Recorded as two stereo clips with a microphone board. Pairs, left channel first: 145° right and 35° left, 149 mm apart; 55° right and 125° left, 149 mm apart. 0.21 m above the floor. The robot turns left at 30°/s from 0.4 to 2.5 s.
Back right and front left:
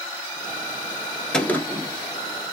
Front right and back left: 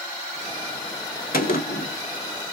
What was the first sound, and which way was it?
A gunshot, 60° right.